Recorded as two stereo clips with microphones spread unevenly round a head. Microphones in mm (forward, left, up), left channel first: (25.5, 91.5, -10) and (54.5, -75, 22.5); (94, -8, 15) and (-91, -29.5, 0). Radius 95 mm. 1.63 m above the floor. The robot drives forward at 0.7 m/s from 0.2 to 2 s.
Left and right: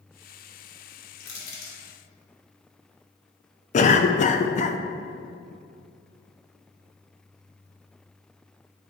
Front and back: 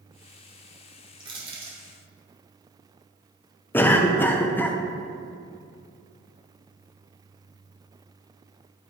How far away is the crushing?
About 2.5 m.